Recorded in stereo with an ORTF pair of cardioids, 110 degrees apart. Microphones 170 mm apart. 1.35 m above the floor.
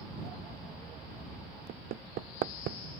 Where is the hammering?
65° right.